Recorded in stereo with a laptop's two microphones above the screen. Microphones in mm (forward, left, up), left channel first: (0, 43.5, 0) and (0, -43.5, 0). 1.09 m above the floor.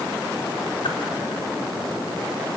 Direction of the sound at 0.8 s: 75° left (ahead or behind).